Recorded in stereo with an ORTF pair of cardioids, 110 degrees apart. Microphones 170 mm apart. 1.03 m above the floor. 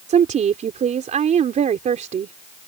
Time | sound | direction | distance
0.1 | a woman speaking | 45° right | ?